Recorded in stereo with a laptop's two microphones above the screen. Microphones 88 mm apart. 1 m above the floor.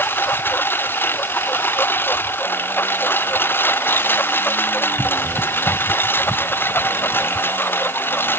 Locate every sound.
0.0 s a lawn mower: 25° left (ahead or behind)